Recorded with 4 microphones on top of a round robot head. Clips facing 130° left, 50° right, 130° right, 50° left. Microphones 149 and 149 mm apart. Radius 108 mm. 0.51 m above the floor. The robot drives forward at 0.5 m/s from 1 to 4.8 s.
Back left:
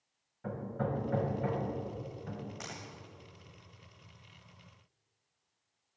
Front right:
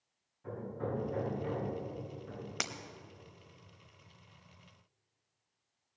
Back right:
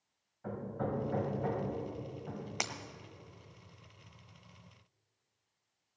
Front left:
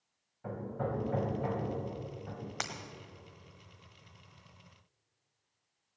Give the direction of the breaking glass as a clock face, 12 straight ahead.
2 o'clock.